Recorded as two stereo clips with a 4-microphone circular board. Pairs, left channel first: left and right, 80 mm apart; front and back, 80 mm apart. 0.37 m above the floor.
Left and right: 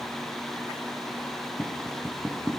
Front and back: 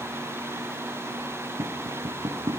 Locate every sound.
1.6 s tapping: 175° right, 5.5 m